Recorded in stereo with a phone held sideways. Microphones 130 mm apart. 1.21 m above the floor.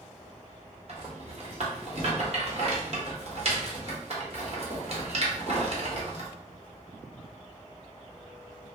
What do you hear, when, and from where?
0.9 s a rattle: 50° right (ahead or behind), 1.0 m